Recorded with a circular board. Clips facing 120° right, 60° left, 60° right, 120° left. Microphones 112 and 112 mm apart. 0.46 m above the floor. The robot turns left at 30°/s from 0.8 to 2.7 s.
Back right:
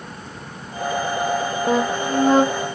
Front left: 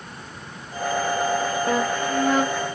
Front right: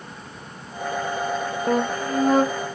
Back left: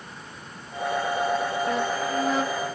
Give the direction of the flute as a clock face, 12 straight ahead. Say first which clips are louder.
Back right 5 dB, front right 3 dB; 2 o'clock.